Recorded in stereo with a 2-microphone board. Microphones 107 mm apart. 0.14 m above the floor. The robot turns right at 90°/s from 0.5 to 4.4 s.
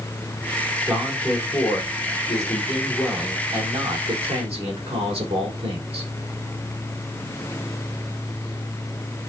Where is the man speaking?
30° right, 6.5 m; by 6.1 s 75° right, 6.5 m.